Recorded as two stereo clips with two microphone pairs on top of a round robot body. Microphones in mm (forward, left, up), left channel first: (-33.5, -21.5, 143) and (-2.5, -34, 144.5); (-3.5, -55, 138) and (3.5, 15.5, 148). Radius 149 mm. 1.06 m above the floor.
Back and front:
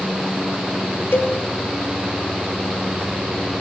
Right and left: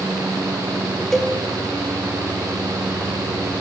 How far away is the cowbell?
About 2 m.